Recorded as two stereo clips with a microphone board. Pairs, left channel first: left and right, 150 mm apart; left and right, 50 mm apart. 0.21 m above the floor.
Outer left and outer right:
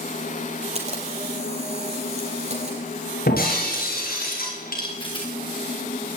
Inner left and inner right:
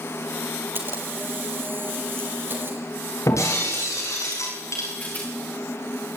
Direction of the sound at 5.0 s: 35° left (ahead or behind).